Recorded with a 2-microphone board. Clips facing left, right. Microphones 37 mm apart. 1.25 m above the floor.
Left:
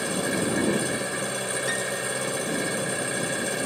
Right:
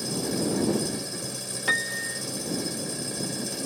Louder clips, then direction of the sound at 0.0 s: Left 3 dB; 55° left (ahead or behind).